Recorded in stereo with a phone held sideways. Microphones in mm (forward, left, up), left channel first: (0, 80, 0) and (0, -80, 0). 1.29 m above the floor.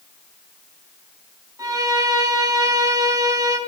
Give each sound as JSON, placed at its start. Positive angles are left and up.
{"t": 1.6, "sound": "a violin", "side_deg": -20, "distance_m": 0.5}